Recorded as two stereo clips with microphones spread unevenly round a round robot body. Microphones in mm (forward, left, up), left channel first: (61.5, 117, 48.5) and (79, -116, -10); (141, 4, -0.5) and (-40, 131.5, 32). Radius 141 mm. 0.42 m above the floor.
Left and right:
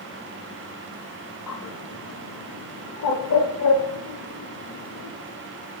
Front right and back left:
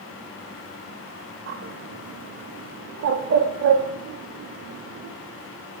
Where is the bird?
115° left, 0.6 m.